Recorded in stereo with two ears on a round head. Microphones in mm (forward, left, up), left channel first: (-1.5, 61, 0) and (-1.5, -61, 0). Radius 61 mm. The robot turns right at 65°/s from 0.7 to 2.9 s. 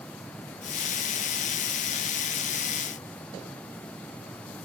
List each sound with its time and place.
Only background noise.